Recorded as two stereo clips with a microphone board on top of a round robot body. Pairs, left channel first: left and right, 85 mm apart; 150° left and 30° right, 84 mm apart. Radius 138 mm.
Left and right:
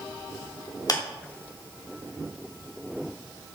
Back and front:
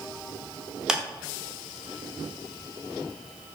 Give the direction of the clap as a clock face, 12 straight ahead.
10 o'clock.